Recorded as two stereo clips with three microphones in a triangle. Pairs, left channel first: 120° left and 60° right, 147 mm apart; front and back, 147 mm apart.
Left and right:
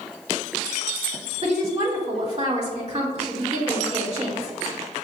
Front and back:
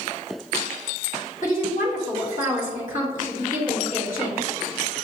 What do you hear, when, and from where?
1.4 s a woman speaking: 20° right, 1.9 m